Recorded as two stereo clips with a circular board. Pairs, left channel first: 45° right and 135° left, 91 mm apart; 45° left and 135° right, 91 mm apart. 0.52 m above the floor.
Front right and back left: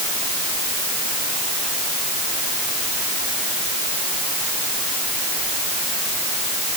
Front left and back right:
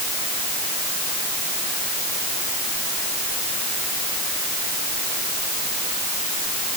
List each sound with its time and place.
Only background noise.